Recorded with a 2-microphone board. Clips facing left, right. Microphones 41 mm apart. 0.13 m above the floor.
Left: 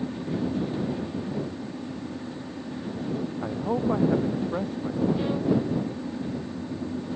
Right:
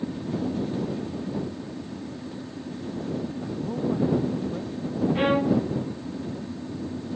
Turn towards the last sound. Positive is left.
turn(degrees=-50)  # may be behind; listen again after turning